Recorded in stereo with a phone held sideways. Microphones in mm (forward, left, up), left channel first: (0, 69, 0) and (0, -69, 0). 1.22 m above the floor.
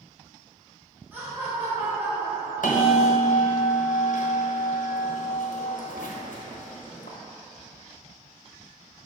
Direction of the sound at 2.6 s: 70° left (ahead or behind).